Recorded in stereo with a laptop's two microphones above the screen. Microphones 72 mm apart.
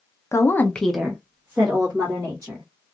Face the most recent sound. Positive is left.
turn(degrees=-35)  # may be behind; listen again after turning